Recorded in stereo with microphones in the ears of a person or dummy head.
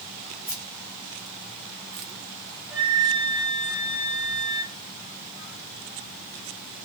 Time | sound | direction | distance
0.5 | keys jangling | 40° right (ahead or behind) | 0.7 m
2.7 | a flute | 10° left (ahead or behind) | 1.5 m